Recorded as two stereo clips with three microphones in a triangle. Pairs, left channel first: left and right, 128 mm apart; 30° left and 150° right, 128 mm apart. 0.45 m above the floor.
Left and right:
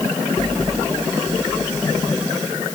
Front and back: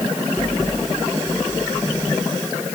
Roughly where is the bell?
No bell in this recording.